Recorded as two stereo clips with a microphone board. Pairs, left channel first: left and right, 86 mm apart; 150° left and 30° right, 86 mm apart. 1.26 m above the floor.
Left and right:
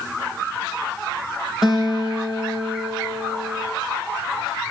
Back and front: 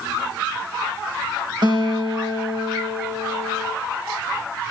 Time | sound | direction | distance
1.6 | a guitar | 5° right | 6 m